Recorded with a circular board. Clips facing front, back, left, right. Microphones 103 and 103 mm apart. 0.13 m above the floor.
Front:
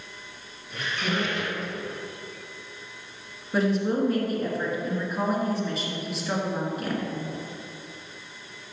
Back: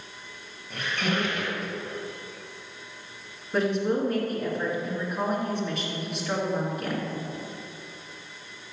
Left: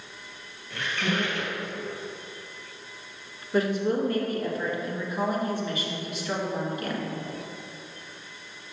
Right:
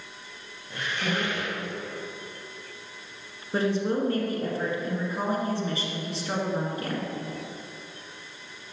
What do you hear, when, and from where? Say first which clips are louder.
0.7 s a squeak: back 1 dB, left 1 dB; 160° right, 2 m
3.5 s a woman speaking: front 1 dB, left 1 dB; 85° right, 1.7 m